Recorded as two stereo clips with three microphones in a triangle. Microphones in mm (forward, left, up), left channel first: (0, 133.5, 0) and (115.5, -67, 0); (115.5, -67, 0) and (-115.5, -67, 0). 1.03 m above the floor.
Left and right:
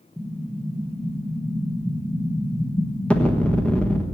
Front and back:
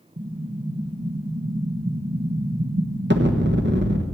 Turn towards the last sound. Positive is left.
turn(degrees=-155)